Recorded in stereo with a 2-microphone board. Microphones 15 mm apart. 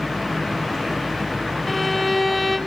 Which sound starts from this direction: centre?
A violin, at 1.7 s.